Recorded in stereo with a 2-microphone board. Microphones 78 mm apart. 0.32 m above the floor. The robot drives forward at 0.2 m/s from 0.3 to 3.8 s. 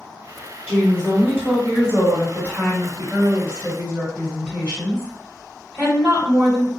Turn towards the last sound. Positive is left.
turn(degrees=-15)  # may be behind; listen again after turning